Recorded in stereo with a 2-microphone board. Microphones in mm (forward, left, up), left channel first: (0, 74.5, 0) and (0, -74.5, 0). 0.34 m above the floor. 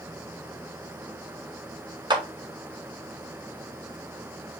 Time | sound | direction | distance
2.1 | a clap | 30° right (ahead or behind) | 0.7 m